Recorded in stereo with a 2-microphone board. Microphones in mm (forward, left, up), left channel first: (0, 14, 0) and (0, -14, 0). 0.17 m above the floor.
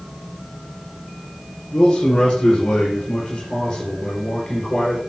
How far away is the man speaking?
About 4 m.